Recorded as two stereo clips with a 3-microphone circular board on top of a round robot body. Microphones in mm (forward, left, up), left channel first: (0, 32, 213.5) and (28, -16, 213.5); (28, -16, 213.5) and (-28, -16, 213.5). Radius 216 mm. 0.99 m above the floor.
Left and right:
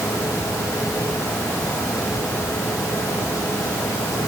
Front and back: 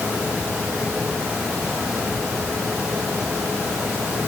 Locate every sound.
Only background noise.